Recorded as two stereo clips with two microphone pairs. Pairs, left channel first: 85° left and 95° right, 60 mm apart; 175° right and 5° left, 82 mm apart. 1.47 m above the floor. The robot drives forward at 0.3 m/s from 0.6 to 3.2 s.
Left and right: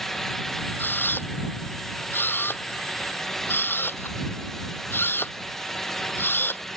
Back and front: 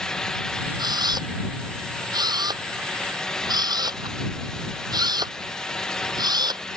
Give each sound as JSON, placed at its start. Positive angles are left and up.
{"t": 0.8, "sound": "a camera shutter", "azimuth_deg": 35}